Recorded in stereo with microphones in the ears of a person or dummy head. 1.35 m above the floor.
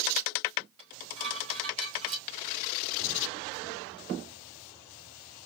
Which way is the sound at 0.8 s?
35° right (ahead or behind).